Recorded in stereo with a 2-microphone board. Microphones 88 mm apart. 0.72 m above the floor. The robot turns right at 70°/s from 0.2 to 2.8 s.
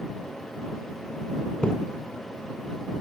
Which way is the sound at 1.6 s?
10° left (ahead or behind).